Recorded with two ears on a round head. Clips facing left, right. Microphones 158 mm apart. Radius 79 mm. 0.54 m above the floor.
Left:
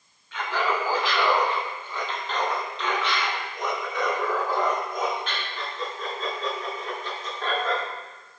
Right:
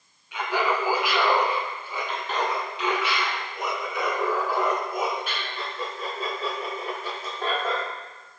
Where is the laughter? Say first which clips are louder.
Right 1 dB; 15° right (ahead or behind), 3 m; by 7.8 s 10° right (ahead or behind), 8 m.